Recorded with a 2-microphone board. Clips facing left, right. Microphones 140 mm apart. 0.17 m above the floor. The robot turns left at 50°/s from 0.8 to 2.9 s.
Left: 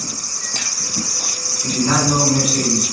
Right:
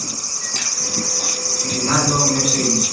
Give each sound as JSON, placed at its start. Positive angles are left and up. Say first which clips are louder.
{"t": 1.6, "sound": "a man speaking", "louder": "left 2 dB", "side_deg": 15, "distance_m": 1.8}